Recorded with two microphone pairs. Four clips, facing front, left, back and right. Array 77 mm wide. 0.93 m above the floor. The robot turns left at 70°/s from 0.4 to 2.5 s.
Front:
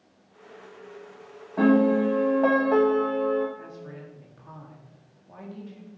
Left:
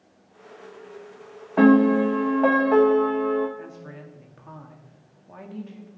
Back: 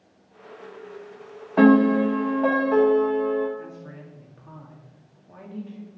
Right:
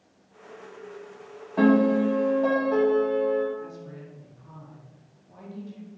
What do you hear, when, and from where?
1.6 s a piano: 140° left, 1.2 m; by 3.5 s 75° left, 1.2 m
3.6 s a woman speaking: 85° left, 1.8 m